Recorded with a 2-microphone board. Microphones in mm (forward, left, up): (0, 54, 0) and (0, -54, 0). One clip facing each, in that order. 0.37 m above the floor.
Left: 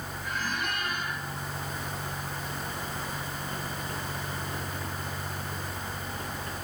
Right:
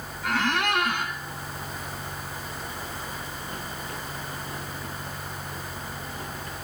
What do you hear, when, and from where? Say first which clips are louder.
0.2 s a squeak: right 9 dB; 75° right (ahead or behind), 1.7 m